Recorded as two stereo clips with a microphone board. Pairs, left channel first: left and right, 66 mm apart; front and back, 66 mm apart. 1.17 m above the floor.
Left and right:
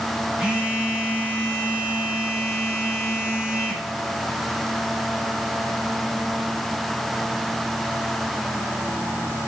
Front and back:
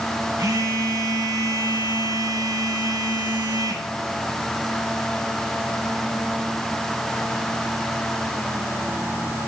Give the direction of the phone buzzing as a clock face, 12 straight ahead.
5 o'clock.